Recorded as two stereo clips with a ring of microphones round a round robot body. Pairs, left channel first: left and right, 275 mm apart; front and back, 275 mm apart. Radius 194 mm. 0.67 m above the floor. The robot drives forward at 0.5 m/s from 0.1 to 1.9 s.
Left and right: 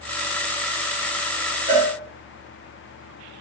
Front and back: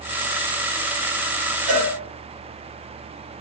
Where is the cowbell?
175° right, 3 m.